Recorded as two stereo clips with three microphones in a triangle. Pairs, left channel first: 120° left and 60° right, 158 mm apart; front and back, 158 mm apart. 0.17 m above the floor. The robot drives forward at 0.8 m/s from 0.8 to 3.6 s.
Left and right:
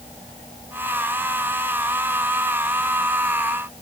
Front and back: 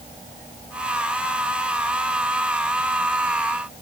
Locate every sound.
Only background noise.